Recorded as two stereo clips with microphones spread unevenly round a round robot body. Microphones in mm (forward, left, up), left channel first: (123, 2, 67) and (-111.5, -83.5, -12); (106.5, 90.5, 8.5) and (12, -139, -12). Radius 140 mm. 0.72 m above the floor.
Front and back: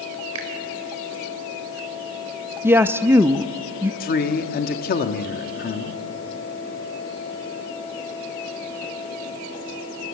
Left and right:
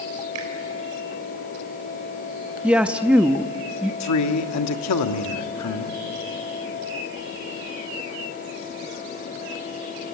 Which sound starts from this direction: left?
A man speaking, at 4.0 s.